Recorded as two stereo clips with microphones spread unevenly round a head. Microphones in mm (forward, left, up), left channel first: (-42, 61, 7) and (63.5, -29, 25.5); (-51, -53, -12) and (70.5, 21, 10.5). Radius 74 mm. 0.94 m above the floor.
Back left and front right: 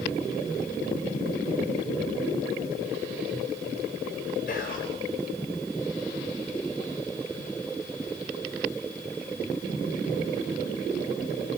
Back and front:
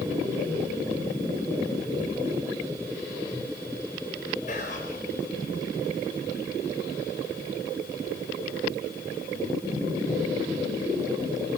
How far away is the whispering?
About 4 m.